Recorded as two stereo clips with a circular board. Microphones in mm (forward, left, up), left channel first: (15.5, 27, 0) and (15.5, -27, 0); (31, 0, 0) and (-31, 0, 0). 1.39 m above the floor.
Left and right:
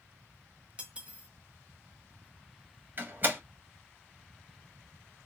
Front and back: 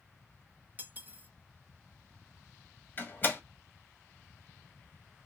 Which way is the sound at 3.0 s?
50° right.